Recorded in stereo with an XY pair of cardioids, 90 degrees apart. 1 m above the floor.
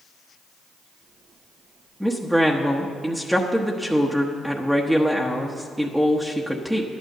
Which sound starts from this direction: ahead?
A woman speaking, at 2.0 s.